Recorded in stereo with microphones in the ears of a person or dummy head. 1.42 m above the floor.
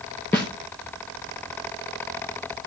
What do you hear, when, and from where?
0.3 s a snare drum: 10° left (ahead or behind), 0.7 m